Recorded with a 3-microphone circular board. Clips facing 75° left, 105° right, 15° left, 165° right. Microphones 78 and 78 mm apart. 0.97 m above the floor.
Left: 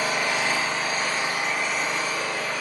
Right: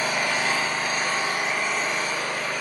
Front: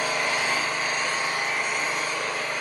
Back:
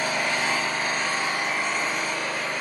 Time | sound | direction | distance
0.0 | an engine running | 130° right | 1.4 m